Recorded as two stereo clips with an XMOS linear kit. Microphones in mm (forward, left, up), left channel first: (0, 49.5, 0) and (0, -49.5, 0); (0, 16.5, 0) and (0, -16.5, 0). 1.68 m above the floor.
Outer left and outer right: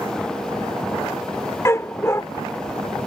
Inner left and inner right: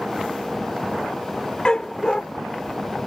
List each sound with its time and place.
1.6 s a dog barking: 30° left (ahead or behind)